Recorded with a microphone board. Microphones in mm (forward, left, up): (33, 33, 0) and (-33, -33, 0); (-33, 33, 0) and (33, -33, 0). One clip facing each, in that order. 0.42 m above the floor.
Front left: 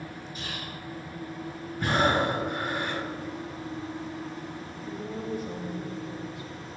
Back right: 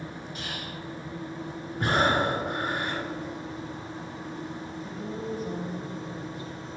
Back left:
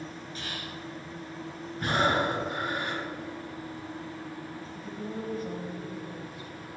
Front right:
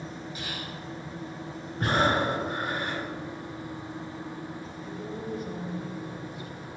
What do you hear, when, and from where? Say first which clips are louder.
0.3 s whispering: even, front right 1 dB; 120° right, 2.5 m
1.8 s breathing: even, front right 1 dB; 95° right, 2.5 m
4.7 s a woman speaking: front left 2 dB, back left 2 dB; 175° right, 1.8 m